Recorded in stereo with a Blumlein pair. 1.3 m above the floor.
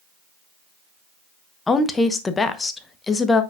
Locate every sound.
1.7 s a woman speaking: 15° left, 1.0 m